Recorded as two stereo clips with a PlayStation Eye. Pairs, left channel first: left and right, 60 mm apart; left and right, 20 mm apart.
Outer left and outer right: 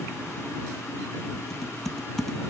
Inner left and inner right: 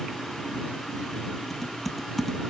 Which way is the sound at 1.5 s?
5° left (ahead or behind).